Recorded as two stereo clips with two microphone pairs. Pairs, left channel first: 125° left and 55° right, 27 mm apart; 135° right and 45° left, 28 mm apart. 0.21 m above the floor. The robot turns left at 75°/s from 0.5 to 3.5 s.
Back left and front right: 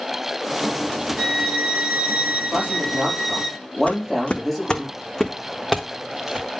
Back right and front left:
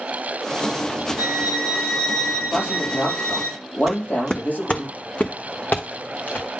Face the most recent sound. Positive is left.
turn(degrees=-135)